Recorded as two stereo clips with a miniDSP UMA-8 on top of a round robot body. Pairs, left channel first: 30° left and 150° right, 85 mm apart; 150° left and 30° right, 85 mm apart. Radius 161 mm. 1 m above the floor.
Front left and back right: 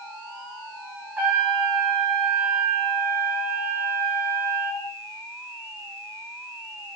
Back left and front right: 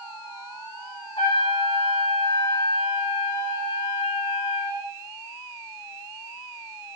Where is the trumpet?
145° left, 2.5 m.